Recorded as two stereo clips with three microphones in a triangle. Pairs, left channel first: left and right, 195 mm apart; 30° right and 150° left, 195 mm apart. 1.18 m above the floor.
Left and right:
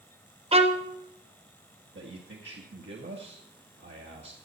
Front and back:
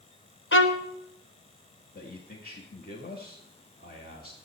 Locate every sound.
0.5 s a violin: 30° right, 1.1 m
1.9 s a man speaking: 70° right, 1.7 m